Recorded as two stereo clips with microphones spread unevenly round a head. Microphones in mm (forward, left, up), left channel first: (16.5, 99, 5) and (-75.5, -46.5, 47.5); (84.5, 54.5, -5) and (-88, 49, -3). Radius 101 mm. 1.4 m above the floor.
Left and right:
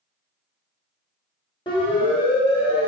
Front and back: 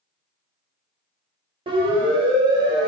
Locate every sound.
1.7 s a siren: 120° left, 8.5 m; by 2.9 s 115° left, 8 m